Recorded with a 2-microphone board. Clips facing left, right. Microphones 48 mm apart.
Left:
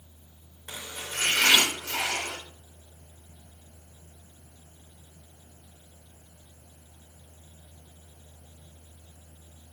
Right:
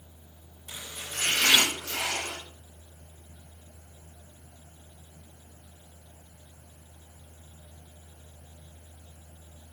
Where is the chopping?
50° left (ahead or behind), 5.5 m.